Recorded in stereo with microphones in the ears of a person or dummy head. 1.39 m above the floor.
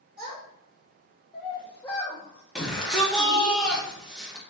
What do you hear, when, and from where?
0.2 s a child speaking: 25° right (ahead or behind), 1.4 m; by 3.5 s 70° left (ahead or behind), 1.1 m
2.5 s a shout: centre (ahead or behind), 1.4 m